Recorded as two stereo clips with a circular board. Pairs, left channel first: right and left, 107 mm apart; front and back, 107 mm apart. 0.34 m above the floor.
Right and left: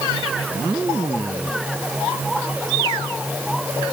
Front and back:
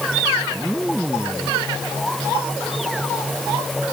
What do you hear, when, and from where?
Only background noise.